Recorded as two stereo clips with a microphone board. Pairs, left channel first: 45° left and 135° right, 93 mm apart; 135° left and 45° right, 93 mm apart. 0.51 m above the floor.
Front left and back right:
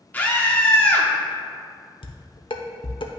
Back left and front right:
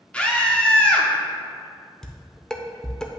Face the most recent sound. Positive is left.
turn(degrees=50)